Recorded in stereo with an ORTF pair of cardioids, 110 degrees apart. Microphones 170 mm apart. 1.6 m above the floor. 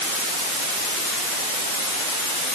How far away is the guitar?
I don't hear a guitar.